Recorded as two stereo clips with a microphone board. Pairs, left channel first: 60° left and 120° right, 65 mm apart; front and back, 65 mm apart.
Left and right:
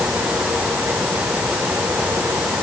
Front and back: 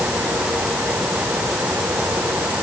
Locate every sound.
Only background noise.